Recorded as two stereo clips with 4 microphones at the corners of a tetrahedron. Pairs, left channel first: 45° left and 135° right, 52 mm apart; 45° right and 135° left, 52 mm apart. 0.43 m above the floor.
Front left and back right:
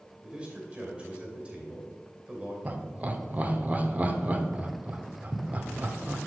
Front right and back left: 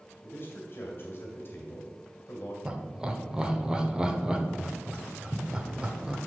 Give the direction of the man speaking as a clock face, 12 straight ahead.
2 o'clock.